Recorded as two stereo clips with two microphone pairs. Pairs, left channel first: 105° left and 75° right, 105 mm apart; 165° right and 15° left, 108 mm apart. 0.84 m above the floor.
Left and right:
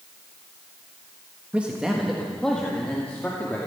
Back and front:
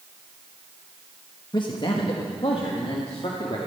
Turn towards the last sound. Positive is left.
turn(degrees=175)